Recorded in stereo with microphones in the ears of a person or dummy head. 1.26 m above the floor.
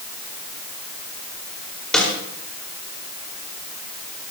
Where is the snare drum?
10° left (ahead or behind), 4.5 m.